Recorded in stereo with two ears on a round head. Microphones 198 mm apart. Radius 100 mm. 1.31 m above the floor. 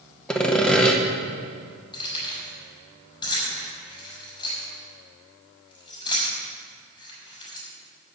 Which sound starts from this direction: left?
Keys jangling, at 1.9 s.